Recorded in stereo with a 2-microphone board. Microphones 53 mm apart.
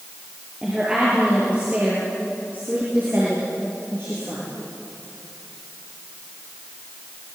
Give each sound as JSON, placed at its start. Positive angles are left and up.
{"t": 0.6, "sound": "a woman speaking", "side_deg": -15, "distance_m": 6.0}